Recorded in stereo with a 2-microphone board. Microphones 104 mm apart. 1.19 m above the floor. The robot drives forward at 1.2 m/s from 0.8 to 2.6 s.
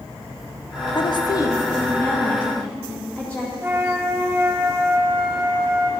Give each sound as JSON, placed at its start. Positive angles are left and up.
{"t": 0.9, "sound": "a woman speaking", "side_deg": 50, "distance_m": 0.6}
{"t": 3.6, "sound": "a flute", "side_deg": -25, "distance_m": 0.7}